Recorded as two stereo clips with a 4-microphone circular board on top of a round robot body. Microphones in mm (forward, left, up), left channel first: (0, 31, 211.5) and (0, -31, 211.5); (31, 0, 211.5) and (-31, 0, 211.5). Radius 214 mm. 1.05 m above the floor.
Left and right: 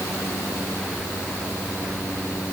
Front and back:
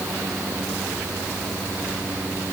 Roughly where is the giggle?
I don't hear a giggle.